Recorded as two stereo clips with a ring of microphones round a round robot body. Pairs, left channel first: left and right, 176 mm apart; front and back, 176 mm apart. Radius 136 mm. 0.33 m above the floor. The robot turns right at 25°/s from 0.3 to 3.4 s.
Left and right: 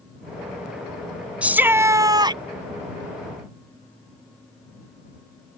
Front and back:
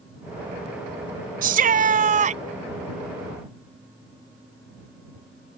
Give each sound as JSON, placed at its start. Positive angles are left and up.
{"t": 1.4, "sound": "a shout", "azimuth_deg": -170}